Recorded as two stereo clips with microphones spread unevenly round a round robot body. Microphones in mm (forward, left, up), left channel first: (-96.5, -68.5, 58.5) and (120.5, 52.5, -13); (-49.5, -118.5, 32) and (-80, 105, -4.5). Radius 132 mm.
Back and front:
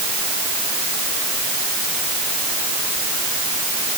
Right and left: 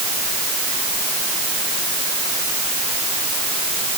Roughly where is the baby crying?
No baby crying in this recording.